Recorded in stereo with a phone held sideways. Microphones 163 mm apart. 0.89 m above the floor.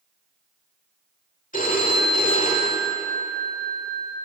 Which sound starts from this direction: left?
A phone ringing, at 1.5 s.